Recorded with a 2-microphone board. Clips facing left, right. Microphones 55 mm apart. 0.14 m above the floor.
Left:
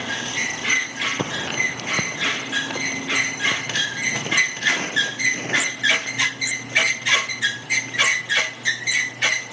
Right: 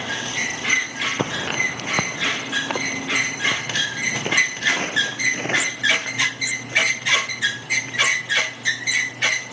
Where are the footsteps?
25° right (ahead or behind), 0.7 m; by 8.4 s 40° right (ahead or behind), 8 m.